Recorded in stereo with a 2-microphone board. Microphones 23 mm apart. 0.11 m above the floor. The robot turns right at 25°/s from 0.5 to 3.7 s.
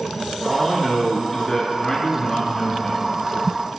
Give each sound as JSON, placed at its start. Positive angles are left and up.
{"t": 0.5, "sound": "a man speaking", "side_deg": 25, "distance_m": 1.6}